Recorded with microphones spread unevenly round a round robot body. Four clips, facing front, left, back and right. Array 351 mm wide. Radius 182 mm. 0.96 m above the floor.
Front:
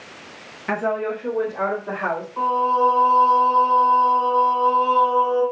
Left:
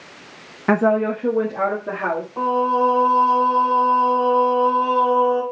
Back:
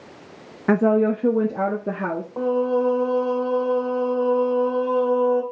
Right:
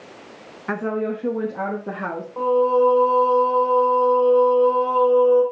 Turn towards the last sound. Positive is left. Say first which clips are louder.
# right 2 dB, front 2 dB
turn(degrees=180)